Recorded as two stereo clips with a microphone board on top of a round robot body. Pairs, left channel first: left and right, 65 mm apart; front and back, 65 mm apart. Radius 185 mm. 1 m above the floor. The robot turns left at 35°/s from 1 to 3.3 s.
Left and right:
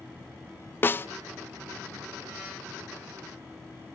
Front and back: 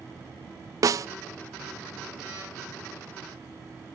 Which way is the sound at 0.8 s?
145° left.